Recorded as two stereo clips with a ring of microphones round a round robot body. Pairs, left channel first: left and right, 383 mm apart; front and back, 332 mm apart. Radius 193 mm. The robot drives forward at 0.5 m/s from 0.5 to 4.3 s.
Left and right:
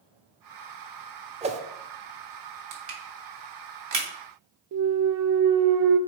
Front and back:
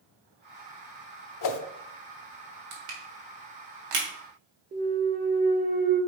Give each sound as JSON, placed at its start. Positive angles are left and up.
{"t": 1.4, "sound": "a whoosh", "azimuth_deg": -20, "distance_m": 0.7}
{"t": 2.7, "sound": "crushing", "azimuth_deg": -140, "distance_m": 2.0}
{"t": 4.7, "sound": "a clunk", "azimuth_deg": -120, "distance_m": 0.6}